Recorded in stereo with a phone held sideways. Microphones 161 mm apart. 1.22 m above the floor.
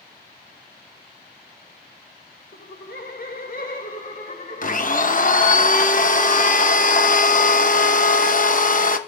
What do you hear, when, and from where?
2.5 s laughter: 70° left (ahead or behind), 1.6 m; by 5.6 s 40° left (ahead or behind), 3.5 m
4.6 s a blender: 50° left (ahead or behind), 1.0 m